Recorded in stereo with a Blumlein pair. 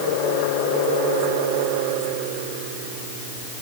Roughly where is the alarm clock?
I don't hear an alarm clock.